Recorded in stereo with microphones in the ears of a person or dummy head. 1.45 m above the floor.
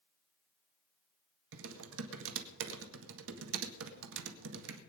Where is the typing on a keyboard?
75° right (ahead or behind), 1.9 m.